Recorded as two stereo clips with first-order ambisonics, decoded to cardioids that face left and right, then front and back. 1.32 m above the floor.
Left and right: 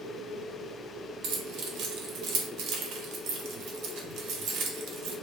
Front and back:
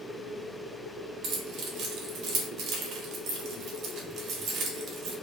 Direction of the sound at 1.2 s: 130° right.